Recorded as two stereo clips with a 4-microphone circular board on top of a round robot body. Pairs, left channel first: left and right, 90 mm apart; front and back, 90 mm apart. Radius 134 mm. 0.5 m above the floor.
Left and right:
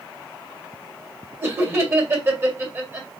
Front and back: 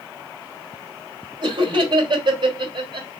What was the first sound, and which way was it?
Laughter, 150° right.